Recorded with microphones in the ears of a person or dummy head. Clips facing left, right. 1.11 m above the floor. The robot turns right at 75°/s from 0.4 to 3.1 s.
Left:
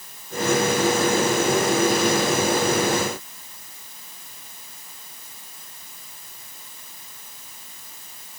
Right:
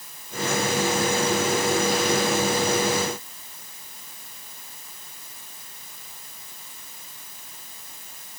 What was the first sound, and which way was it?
Only background noise.